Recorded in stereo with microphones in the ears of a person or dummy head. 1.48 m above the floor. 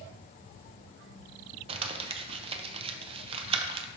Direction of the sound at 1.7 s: 30° right (ahead or behind).